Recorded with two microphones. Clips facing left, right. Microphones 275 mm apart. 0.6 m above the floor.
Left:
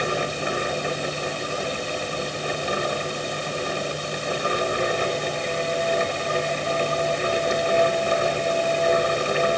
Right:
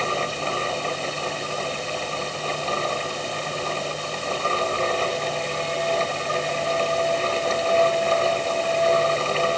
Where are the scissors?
No scissors in this recording.